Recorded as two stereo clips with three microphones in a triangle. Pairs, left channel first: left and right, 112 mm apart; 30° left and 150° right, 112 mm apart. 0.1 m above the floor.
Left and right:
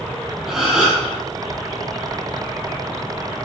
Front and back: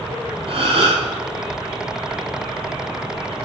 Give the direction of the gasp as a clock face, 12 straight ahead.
6 o'clock.